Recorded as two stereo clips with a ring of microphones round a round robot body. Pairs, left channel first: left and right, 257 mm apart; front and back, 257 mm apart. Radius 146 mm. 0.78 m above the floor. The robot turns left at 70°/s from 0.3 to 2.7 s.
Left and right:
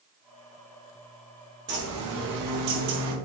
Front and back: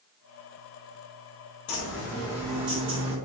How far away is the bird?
About 0.9 m.